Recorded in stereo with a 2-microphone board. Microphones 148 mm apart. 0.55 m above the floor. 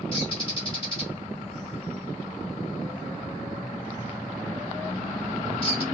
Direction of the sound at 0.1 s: 35° left (ahead or behind).